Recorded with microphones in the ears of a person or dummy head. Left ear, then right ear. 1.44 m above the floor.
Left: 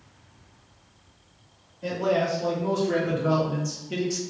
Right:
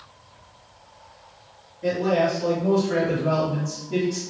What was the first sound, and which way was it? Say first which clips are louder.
A man speaking: right 3 dB; 70° left (ahead or behind).